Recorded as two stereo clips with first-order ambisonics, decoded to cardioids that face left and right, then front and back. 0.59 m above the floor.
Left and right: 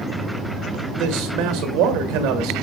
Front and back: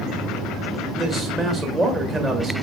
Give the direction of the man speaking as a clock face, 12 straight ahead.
4 o'clock.